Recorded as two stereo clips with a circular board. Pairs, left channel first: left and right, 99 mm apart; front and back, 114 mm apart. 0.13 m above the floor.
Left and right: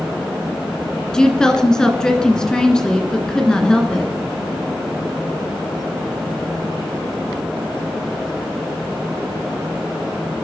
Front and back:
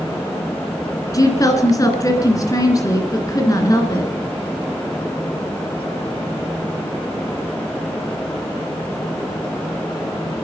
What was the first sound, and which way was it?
A woman speaking, 15° left.